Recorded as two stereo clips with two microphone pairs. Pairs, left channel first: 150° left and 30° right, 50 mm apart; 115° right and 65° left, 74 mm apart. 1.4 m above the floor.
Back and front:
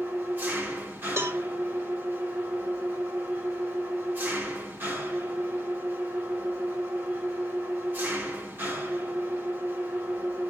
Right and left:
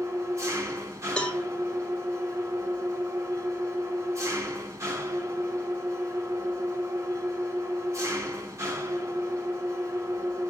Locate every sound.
0.0 s an engine running: 15° left, 3 m
1.2 s a cowbell: 40° right, 1.3 m